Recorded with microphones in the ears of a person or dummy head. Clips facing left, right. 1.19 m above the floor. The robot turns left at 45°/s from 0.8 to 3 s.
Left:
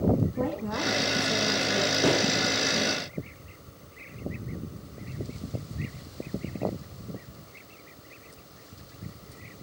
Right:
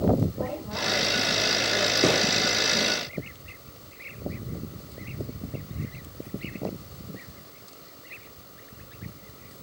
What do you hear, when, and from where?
0.4 s a woman speaking: 105° left, 1.2 m; by 1.9 s 55° left, 1.2 m
2.0 s a gunshot: 35° right (ahead or behind), 3.5 m; by 2.2 s 45° right (ahead or behind), 3.5 m